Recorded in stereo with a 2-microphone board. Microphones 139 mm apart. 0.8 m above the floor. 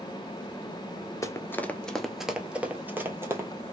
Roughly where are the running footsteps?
Left.